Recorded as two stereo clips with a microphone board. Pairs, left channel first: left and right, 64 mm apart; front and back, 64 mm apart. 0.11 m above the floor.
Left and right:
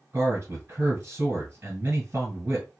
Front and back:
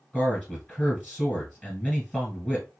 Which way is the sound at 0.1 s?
65° right.